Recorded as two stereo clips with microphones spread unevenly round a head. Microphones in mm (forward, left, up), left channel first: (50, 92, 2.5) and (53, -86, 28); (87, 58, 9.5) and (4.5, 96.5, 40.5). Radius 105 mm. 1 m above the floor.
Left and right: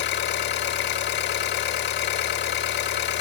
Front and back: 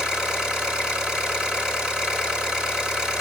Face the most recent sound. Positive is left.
turn(degrees=70)